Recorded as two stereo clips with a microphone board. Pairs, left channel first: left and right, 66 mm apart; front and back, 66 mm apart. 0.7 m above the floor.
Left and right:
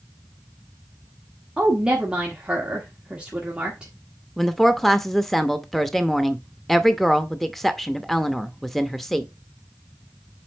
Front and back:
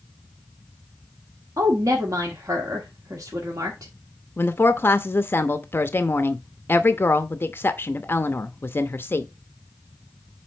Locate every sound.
1.6 s a woman speaking: 165° right, 1.4 m
4.4 s a woman speaking: 5° left, 0.7 m